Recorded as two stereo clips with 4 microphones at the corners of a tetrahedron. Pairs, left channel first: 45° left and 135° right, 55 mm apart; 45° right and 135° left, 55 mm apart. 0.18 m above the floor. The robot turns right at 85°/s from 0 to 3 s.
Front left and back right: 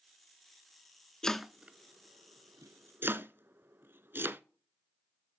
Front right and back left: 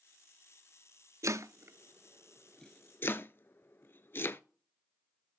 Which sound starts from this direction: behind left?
Chopping, at 1.2 s.